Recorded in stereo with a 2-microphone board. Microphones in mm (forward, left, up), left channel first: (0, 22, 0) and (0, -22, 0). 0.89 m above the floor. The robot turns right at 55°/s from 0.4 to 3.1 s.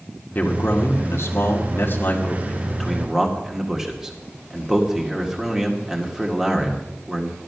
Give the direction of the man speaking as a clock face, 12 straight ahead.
11 o'clock.